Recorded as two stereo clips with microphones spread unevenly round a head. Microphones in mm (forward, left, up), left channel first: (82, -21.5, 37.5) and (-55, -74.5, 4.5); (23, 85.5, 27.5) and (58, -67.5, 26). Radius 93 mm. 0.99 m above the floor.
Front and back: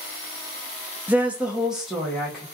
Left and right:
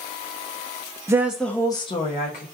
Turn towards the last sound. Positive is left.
turn(degrees=120)